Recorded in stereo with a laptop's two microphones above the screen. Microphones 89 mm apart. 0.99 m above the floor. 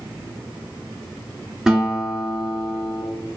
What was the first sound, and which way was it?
A guitar, 5° right (ahead or behind).